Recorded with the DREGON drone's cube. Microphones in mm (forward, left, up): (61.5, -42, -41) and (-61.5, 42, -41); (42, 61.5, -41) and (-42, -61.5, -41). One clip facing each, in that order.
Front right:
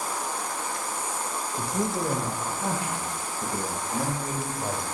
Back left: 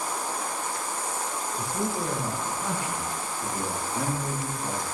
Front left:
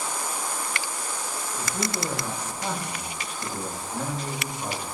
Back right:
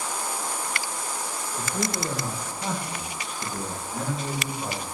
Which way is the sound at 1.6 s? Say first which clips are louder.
Front right 2 dB, back right 1 dB; 55° right.